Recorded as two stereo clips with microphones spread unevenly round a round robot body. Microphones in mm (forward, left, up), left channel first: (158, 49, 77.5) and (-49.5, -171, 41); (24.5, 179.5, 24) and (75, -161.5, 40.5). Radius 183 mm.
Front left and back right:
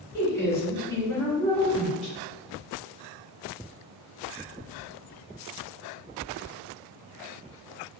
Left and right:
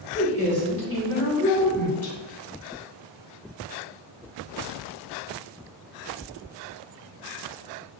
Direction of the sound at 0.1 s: 35° right.